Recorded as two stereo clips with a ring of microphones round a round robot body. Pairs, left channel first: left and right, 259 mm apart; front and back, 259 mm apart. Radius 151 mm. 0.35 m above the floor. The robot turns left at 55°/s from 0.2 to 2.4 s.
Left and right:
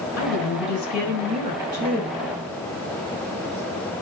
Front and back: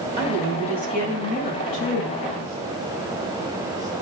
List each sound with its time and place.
0.2 s a woman speaking: 130° left, 4 m; by 2.1 s 20° left, 4 m